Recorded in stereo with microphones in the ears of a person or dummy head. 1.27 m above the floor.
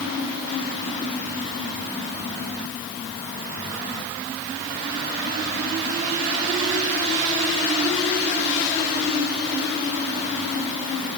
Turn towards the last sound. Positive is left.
No sound to turn to.